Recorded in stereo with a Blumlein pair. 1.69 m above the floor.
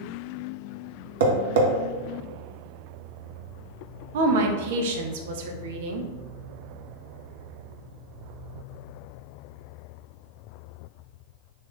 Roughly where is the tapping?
Ahead right.